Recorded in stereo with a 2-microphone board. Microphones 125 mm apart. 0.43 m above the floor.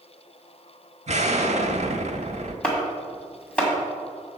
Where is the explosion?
60° right (ahead or behind), 0.8 m.